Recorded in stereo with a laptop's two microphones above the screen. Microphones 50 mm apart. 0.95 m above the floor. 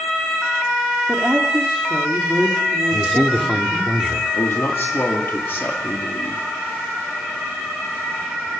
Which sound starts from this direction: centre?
A man speaking, at 2.9 s.